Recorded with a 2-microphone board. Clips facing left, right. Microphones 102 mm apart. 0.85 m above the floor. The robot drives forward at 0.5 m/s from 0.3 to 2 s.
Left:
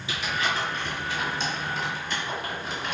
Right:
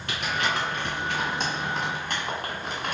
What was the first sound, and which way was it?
Crumpling, 80° right.